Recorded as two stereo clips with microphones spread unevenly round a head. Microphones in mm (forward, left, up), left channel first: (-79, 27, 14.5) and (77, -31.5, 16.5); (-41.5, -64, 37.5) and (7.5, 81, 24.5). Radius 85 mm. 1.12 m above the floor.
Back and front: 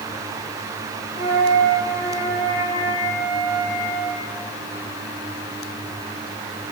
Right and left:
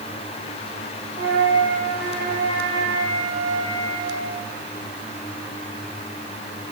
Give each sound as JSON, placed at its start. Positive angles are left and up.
{"t": 1.1, "sound": "a flute", "azimuth_deg": -80, "distance_m": 2.5}